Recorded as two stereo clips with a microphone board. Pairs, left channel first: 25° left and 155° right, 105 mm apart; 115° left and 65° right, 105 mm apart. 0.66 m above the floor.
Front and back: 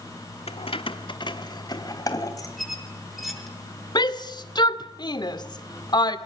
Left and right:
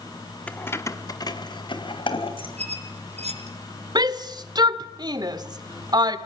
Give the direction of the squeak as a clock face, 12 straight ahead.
2 o'clock.